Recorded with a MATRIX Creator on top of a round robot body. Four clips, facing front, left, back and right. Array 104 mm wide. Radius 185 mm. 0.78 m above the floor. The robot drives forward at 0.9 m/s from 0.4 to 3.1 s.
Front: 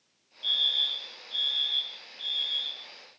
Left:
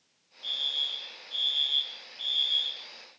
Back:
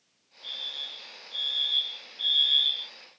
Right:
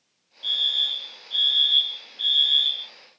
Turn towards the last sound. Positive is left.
turn(degrees=-125)